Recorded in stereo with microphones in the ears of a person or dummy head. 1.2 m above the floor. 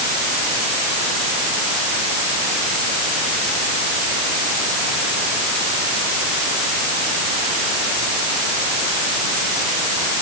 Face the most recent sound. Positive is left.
No sound to turn to.